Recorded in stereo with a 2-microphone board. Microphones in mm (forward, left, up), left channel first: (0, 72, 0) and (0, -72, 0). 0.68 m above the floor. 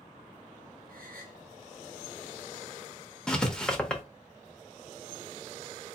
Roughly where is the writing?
Centre.